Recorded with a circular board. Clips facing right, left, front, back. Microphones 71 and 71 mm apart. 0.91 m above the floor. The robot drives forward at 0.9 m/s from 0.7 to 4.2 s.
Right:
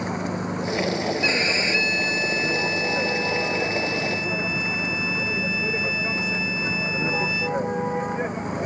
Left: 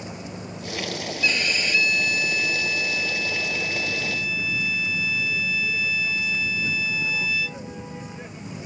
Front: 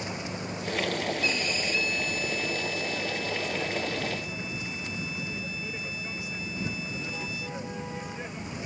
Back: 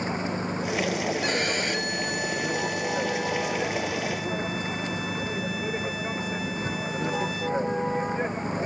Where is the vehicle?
125° right; by 8.7 s 130° right.